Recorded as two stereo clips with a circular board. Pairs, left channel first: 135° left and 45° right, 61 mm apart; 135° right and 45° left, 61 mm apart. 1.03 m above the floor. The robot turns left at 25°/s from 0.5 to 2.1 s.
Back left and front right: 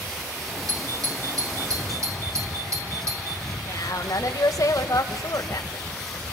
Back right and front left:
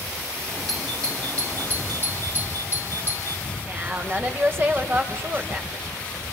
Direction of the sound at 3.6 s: 100° left.